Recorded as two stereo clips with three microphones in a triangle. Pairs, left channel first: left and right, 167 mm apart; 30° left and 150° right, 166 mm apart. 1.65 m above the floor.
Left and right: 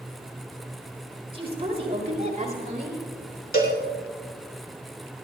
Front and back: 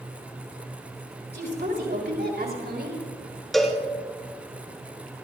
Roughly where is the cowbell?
Behind left.